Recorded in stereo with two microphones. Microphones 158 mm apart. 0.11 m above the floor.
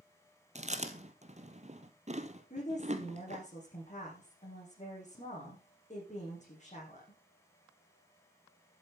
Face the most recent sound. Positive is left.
turn(degrees=50)  # may be behind; listen again after turning